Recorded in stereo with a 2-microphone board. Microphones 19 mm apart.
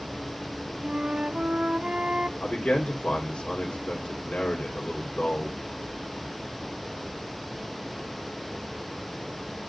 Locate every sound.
0.8 s a flute: 65° right (ahead or behind), 0.9 m
2.4 s a man speaking: 85° left, 3 m